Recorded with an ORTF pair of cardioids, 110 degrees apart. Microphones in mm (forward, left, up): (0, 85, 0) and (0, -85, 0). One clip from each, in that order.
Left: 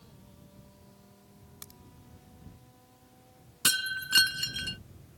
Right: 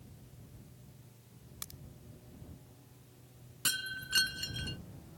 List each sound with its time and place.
1.6 s a crack: 15° right
3.6 s breaking glass: 45° left